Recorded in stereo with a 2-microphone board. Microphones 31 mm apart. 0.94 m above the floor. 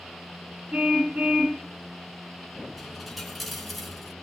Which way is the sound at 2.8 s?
Centre (ahead or behind).